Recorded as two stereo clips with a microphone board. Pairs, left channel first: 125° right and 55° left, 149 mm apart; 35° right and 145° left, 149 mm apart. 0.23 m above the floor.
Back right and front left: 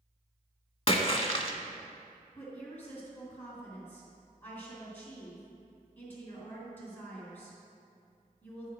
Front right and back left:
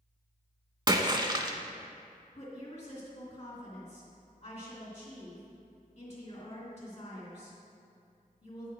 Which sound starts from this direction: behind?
A splash, at 0.9 s.